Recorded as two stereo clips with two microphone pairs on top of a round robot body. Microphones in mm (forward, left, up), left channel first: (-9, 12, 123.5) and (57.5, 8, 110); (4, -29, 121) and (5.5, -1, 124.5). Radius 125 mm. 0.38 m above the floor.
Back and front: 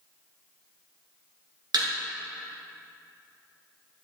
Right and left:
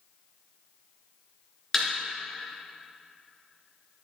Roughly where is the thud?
Ahead.